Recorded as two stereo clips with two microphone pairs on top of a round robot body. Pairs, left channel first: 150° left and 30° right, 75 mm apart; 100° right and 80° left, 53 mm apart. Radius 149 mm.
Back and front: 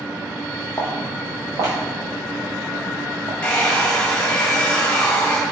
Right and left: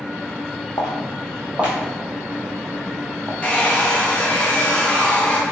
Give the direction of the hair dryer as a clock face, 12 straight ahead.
5 o'clock.